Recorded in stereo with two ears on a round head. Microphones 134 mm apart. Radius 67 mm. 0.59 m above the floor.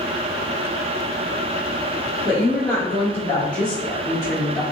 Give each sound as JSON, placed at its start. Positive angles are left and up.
{"t": 2.2, "sound": "a woman speaking", "side_deg": 50, "distance_m": 1.3}